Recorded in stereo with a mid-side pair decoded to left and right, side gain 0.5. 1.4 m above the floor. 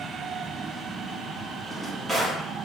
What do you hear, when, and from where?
1.6 s a drawer: 15° right, 1.8 m